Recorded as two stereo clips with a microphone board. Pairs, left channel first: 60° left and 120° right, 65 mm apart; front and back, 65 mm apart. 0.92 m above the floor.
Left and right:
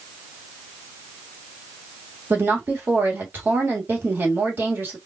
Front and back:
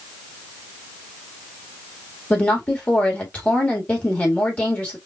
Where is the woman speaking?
65° right, 1.6 m.